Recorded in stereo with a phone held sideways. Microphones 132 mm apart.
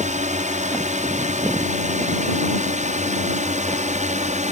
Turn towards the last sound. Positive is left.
turn(degrees=-65)  # may be behind; listen again after turning